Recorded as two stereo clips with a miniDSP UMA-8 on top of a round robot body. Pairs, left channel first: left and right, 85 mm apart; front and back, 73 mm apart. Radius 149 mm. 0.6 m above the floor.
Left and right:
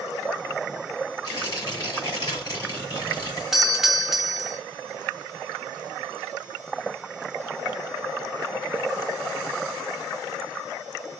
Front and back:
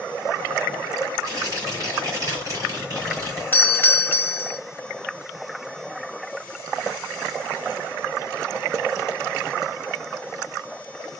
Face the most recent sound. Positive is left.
turn(degrees=-10)